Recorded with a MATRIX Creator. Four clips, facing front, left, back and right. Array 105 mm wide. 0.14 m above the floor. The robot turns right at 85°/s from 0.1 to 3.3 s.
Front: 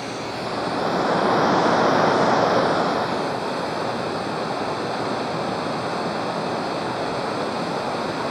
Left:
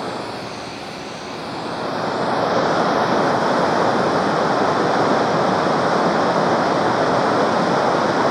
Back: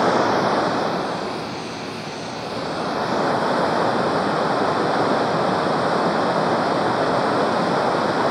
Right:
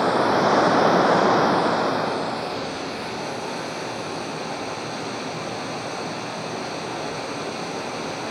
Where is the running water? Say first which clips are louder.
Right 8 dB, back 11 dB; 160° right, 0.8 m; by 8.3 s 115° left, 0.8 m.